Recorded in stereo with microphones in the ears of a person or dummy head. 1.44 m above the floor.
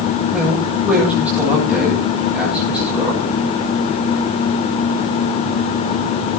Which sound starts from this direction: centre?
A man speaking, at 0.3 s.